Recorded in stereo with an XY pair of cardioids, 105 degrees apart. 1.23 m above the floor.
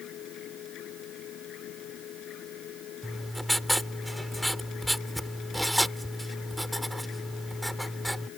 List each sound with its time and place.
0.0 s a machine running: 70° left
3.0 s writing: 5° right